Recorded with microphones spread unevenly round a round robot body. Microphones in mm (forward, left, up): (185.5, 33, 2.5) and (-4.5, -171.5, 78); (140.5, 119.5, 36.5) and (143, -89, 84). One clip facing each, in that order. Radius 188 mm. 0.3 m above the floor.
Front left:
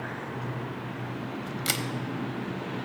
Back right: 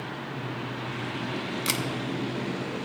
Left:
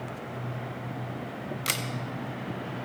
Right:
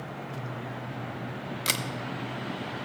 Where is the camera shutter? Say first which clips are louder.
Back right 1 dB, right 1 dB; 45° right, 0.9 m.